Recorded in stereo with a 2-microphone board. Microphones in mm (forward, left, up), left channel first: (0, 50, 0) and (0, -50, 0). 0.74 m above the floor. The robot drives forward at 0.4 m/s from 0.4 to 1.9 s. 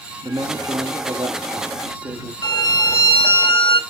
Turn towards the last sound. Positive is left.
turn(degrees=55)  # may be behind; listen again after turning